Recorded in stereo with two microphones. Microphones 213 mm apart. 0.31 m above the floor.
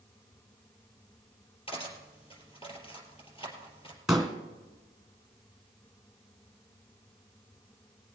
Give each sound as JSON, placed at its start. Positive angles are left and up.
{"t": 1.7, "sound": "cutlery clinking", "side_deg": 25, "distance_m": 4.0}
{"t": 4.1, "sound": "a pop", "side_deg": -5, "distance_m": 2.5}